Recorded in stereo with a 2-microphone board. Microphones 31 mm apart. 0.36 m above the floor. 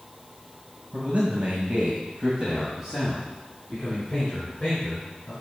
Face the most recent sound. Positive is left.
turn(degrees=30)  # may be behind; listen again after turning